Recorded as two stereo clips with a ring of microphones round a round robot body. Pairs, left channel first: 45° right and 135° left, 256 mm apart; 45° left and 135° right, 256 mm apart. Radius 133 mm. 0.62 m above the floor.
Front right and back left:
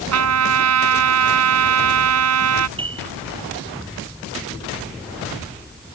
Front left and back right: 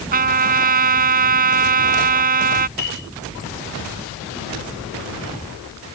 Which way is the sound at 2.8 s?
65° left.